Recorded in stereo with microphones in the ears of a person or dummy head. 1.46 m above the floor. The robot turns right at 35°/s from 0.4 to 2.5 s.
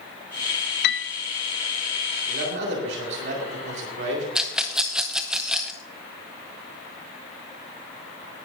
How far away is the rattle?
About 0.6 m.